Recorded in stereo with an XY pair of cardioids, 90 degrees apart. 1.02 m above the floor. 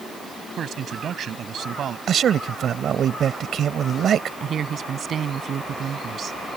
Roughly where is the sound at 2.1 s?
Ahead right.